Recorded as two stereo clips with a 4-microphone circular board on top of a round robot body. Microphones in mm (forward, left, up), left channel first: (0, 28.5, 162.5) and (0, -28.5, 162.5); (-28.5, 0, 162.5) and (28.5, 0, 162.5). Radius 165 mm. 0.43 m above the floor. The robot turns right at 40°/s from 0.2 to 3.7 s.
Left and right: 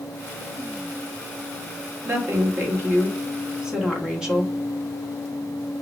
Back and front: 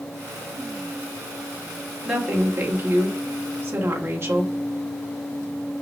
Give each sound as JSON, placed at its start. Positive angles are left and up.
{"t": 2.0, "sound": "a woman speaking", "azimuth_deg": -80, "distance_m": 1.5}